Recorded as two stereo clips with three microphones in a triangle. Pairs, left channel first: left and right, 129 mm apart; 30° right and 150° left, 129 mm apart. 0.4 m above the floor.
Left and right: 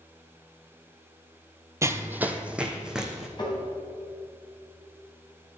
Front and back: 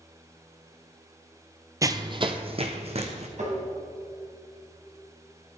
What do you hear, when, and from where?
1.8 s running footsteps: 150° right, 0.6 m; by 3.3 s 175° right, 1.6 m
3.4 s tapping: 140° left, 2.5 m